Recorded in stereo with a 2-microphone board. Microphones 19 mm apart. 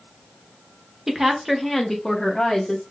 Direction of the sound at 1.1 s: 30° right (ahead or behind).